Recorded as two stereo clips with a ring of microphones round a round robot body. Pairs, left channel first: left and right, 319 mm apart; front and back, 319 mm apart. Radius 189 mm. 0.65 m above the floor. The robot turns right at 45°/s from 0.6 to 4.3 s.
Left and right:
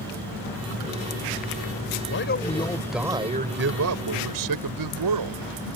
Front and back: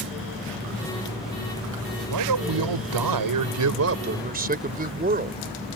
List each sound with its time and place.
2.1 s a man speaking: 145° left; by 5.4 s 115° right